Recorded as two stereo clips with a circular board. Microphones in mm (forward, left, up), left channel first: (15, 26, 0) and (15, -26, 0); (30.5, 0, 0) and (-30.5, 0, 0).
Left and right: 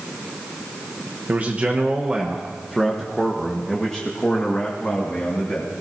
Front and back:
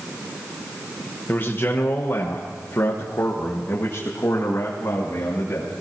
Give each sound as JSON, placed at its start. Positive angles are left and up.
{"t": 1.3, "sound": "a man speaking", "azimuth_deg": -45, "distance_m": 1.2}